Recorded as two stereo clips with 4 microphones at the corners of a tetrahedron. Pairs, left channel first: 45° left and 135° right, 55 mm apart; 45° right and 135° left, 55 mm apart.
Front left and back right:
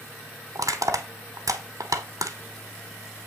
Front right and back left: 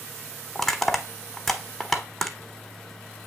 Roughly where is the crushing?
Behind right.